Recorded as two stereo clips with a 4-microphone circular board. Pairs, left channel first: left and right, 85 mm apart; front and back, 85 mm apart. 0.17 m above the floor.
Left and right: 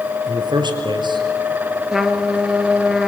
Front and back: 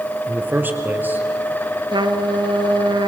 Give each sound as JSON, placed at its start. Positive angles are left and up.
{"t": 0.3, "sound": "a man speaking", "azimuth_deg": -115, "distance_m": 2.5}
{"t": 1.9, "sound": "a trumpet", "azimuth_deg": -175, "distance_m": 1.3}